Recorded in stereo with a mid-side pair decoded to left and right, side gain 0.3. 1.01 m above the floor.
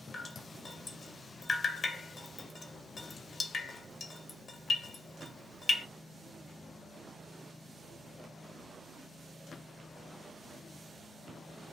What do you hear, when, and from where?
0.1 s dripping: 60° left, 0.6 m